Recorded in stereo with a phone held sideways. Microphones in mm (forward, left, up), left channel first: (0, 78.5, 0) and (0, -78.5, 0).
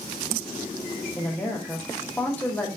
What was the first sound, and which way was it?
A woman speaking, 10° left (ahead or behind).